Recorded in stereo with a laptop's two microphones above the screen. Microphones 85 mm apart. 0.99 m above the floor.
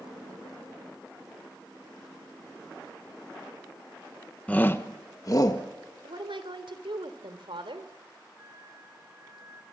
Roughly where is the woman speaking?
Right.